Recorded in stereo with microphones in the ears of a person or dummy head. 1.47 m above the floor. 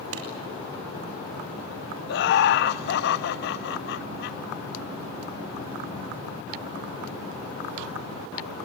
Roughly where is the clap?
Right.